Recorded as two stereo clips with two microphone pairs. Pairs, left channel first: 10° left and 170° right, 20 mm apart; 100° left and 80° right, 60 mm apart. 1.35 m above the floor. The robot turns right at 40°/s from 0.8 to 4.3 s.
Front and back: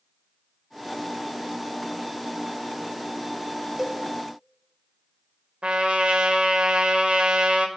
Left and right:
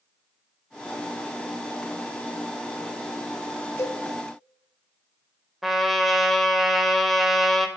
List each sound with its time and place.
3.8 s a cowbell: 130° left, 0.7 m; by 4.0 s 140° left, 0.7 m
5.6 s a trumpet: 165° right, 0.6 m